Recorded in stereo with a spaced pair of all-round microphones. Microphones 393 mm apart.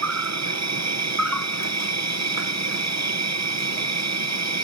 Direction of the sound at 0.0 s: 45° right (ahead or behind).